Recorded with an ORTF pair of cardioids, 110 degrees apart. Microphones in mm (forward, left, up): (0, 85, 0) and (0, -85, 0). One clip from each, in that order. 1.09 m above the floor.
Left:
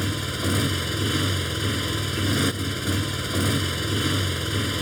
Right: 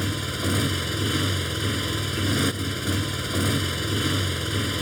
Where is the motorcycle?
10° left.